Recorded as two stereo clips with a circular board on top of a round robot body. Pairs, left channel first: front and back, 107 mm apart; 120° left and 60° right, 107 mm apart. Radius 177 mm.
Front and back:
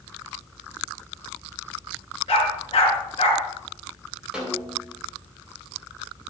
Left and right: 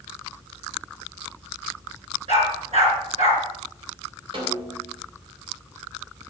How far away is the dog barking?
About 4.5 m.